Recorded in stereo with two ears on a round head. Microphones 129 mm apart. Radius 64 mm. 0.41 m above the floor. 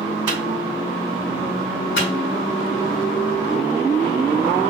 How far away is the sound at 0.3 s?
About 2 m.